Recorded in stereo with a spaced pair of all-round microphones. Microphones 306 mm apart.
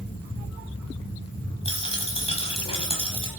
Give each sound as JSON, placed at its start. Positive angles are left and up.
{"t": 1.6, "sound": "a dropped coin", "side_deg": 20, "distance_m": 2.0}